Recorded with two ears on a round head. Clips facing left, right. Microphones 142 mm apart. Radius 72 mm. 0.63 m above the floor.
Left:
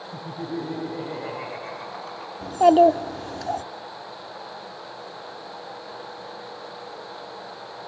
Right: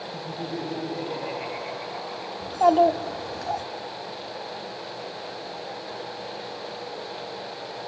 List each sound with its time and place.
0.1 s laughter: 75° left (ahead or behind), 9.5 m; by 2.3 s 80° left, 7 m
2.4 s a child speaking: 35° left (ahead or behind), 1.2 m